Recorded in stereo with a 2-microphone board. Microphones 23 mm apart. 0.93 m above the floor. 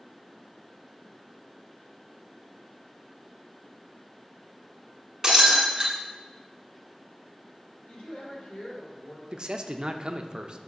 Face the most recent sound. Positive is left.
turn(degrees=-40)  # may be behind; listen again after turning